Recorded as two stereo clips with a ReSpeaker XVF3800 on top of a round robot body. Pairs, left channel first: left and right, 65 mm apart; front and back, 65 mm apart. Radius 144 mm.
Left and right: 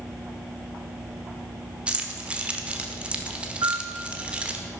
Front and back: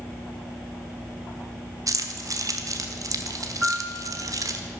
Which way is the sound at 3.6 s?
95° right.